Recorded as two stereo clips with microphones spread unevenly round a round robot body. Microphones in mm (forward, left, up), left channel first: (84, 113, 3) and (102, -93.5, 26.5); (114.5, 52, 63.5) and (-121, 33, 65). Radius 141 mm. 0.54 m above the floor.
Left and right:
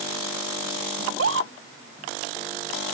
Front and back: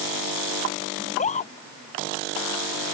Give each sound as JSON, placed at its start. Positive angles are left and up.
{"t": 1.0, "sound": "a scream", "azimuth_deg": -60}